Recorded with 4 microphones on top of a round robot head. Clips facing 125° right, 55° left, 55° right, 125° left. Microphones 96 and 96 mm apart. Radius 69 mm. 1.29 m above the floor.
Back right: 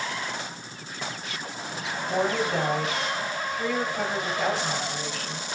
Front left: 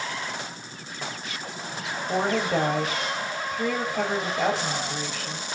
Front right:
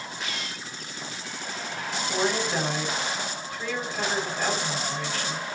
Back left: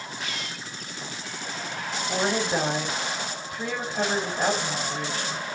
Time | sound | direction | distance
2.1 | a woman speaking | 60° left | 3 m